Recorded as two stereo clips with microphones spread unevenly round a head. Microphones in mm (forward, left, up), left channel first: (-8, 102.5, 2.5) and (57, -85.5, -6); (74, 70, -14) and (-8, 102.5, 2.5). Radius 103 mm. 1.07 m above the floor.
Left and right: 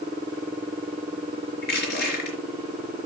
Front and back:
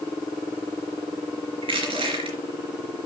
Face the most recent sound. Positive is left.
turn(degrees=155)